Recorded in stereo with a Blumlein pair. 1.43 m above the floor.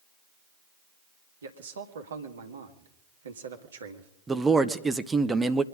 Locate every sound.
1.4 s a man speaking: 65° right, 1.7 m
4.3 s a man speaking: 10° right, 0.7 m